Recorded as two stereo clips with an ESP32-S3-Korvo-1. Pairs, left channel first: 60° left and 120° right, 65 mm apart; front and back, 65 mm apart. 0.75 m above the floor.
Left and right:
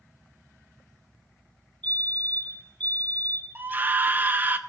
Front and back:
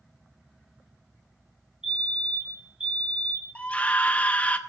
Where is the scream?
65° right, 1.0 m.